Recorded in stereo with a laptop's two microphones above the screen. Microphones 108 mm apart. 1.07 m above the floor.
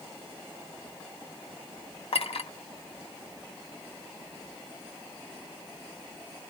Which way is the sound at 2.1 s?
70° left (ahead or behind).